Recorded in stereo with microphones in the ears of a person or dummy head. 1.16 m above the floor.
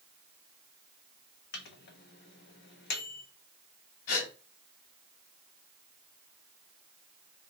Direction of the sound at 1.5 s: 50° left (ahead or behind).